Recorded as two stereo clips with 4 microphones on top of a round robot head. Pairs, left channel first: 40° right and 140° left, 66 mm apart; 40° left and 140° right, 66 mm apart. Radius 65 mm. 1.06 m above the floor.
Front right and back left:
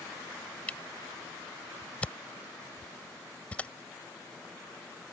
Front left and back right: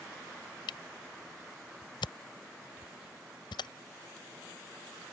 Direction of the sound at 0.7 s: 35° left.